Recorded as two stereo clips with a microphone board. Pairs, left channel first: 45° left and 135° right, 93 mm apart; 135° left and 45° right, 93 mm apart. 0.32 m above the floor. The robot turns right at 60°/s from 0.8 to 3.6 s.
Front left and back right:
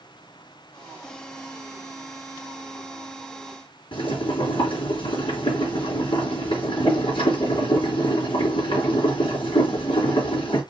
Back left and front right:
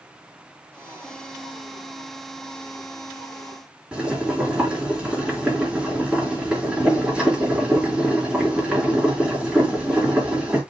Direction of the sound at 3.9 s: 35° left.